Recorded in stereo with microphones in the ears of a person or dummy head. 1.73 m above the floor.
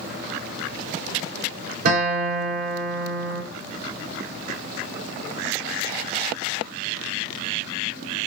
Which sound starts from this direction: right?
A guitar, at 1.9 s.